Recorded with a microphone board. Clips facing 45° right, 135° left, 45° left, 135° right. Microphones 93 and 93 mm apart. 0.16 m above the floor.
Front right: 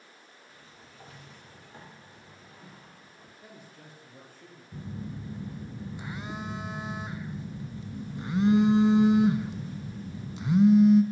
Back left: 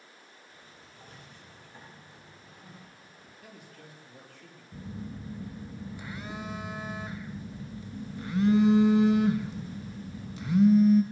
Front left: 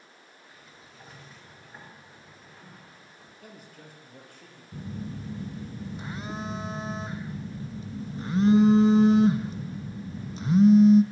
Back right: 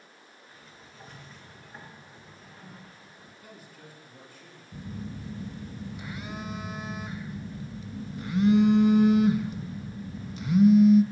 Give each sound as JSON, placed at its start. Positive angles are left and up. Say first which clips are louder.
{"t": 0.5, "sound": "a sliding door", "louder": "even, back right 1 dB", "azimuth_deg": -40, "distance_m": 2.5}
{"t": 3.4, "sound": "a man speaking", "louder": "even, front left 2 dB", "azimuth_deg": 15, "distance_m": 3.5}
{"t": 4.7, "sound": "a phone buzzing", "louder": "front right 1 dB, front left 2 dB", "azimuth_deg": 10, "distance_m": 0.6}